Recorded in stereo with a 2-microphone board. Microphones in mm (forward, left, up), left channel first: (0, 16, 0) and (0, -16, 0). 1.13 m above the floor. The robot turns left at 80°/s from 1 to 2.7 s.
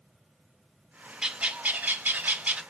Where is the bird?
25° right, 0.6 m; by 2.6 s 135° right, 0.6 m.